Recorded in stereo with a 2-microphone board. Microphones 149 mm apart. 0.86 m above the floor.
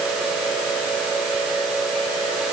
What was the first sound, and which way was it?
Only background noise.